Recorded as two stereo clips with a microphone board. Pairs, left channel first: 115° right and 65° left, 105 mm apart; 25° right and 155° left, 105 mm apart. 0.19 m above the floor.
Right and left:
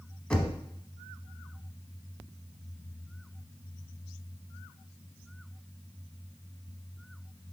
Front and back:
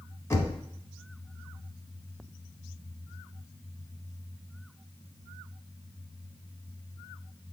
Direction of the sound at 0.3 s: 45° right.